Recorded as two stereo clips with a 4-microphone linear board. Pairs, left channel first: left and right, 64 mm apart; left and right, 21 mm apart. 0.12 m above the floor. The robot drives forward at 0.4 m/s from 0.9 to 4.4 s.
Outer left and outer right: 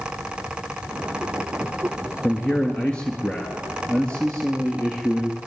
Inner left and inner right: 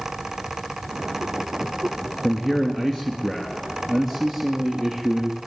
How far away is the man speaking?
About 1.7 m.